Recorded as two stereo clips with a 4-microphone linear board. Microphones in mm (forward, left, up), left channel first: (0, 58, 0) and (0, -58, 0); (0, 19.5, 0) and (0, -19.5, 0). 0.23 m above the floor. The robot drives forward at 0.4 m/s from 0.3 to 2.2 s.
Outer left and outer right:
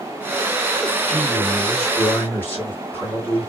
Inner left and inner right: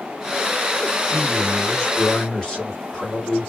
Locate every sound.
1.1 s a man speaking: 20° left (ahead or behind), 1.5 m